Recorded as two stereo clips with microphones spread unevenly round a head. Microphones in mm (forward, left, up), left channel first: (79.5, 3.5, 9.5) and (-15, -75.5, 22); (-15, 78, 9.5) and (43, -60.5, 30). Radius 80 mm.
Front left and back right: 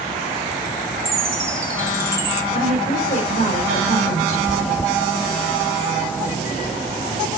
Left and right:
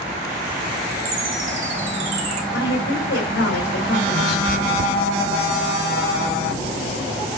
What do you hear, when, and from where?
1.1 s a chime: 70° right, 2.5 m
2.5 s a woman speaking: 90° left, 4 m
4.5 s chewing: 45° right, 0.8 m